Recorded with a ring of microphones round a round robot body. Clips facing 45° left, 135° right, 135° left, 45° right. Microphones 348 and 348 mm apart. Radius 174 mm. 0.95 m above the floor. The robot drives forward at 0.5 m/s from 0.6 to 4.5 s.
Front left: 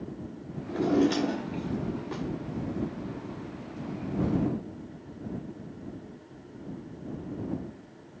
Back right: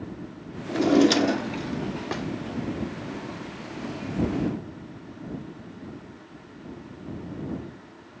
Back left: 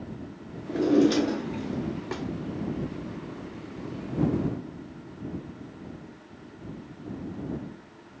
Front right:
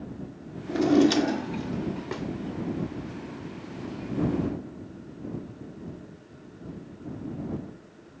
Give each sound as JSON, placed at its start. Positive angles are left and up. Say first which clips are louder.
{"t": 0.7, "sound": "a drawer", "louder": "back right 5 dB, front right 1 dB", "azimuth_deg": -100, "distance_m": 0.8}